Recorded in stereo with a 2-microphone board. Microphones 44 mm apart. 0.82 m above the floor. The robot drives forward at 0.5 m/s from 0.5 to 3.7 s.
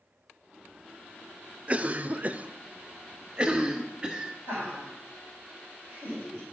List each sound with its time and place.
1.7 s a cough: 30° right (ahead or behind), 0.6 m; by 4.3 s 20° right (ahead or behind), 0.9 m
4.5 s laughter: 55° left (ahead or behind), 5 m